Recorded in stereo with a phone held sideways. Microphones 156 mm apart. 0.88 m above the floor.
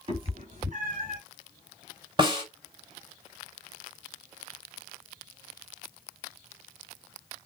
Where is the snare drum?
30° right (ahead or behind), 3.5 m.